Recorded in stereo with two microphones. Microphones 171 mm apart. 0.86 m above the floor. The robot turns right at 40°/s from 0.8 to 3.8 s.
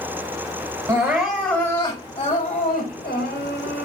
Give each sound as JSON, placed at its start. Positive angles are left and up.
{"t": 0.9, "sound": "crying", "azimuth_deg": -20, "distance_m": 5.5}